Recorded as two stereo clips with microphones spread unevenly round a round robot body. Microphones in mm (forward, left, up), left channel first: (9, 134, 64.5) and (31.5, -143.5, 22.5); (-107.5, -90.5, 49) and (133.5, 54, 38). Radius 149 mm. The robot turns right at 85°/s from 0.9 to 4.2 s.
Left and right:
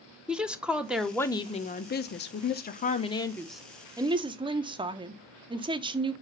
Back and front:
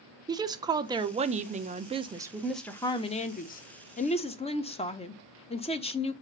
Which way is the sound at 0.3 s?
20° right.